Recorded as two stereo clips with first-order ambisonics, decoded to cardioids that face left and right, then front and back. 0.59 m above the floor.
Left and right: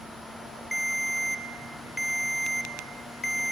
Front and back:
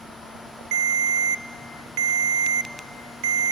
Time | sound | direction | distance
0.7 | a ringtone | 175° left | 1.0 m